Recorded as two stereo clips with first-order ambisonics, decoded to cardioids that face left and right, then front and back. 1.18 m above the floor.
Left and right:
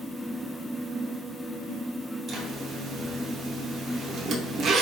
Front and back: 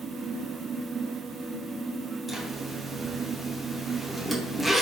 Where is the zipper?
100° right, 0.8 m.